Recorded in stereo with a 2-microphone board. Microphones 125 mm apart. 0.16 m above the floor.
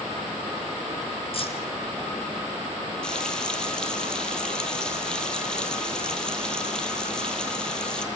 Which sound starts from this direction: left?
Keys jangling, at 1.3 s.